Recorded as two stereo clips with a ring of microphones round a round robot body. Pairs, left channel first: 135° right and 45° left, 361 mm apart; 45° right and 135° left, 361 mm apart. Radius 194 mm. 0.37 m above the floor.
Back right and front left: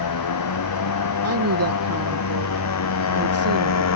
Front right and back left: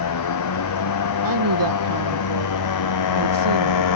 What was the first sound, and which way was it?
A motorcycle, 90° right.